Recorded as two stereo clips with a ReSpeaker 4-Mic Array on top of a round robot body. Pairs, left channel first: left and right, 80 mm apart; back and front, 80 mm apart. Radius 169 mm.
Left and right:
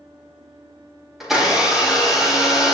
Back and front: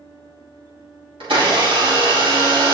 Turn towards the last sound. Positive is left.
turn(degrees=-5)